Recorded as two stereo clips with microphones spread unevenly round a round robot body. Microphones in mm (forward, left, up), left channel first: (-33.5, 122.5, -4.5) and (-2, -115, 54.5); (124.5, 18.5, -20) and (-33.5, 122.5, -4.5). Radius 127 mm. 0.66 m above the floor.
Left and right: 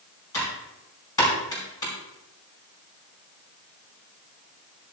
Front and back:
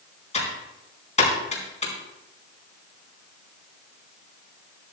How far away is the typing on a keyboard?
About 4.5 m.